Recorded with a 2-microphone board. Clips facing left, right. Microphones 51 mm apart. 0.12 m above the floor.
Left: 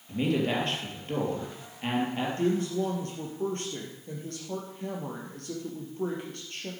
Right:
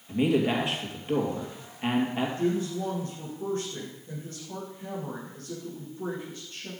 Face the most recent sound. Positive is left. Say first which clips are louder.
# left 3 dB
turn(degrees=60)  # may be behind; listen again after turning